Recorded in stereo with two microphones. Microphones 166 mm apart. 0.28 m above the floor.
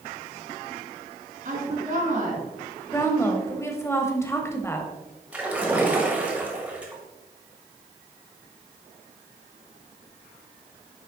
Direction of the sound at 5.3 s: 10° right (ahead or behind).